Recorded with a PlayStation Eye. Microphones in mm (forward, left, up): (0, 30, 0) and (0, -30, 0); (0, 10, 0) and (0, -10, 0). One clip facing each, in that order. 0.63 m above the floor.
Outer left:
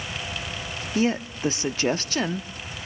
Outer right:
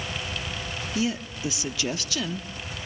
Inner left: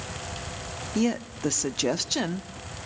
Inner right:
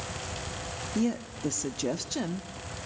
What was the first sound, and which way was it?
A woman speaking, 40° left (ahead or behind).